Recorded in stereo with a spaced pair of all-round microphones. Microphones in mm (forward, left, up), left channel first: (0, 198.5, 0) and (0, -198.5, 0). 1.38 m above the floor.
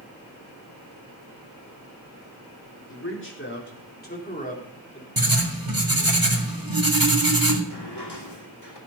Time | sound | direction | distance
2.9 | a man speaking | 30° left (ahead or behind) | 4 m
5.2 | writing | 60° right (ahead or behind) | 2.5 m
7.7 | a drawer | 80° left | 2.5 m